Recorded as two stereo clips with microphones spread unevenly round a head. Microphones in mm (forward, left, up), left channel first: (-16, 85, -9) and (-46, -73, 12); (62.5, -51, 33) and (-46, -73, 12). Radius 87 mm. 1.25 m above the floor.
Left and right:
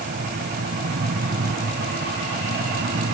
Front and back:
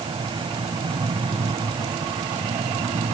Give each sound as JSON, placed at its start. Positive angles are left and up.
{"t": 0.0, "sound": "a fan", "azimuth_deg": -125}